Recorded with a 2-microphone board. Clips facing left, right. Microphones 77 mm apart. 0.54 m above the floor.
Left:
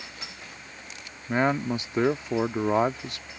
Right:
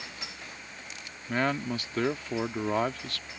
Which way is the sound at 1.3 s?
20° left (ahead or behind).